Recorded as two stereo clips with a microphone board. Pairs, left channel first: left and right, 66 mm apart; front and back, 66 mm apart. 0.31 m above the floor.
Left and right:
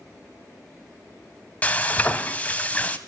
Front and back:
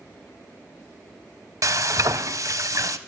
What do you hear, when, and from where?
1.6 s frying: 155° left, 0.7 m